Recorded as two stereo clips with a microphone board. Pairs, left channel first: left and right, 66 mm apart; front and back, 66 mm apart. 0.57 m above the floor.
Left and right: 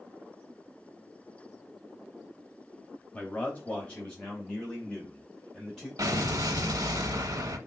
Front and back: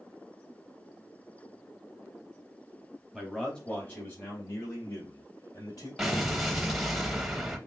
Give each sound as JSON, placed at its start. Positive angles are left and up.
{"t": 3.1, "sound": "a man speaking", "azimuth_deg": 100, "distance_m": 1.0}
{"t": 6.0, "sound": "an explosion", "azimuth_deg": -95, "distance_m": 0.7}